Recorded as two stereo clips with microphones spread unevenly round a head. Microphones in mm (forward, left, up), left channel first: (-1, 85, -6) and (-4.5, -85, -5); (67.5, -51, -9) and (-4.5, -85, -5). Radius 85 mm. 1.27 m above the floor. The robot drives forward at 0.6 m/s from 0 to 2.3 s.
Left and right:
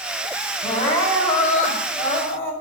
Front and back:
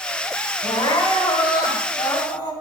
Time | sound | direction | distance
0.6 | crying | 40° left | 2 m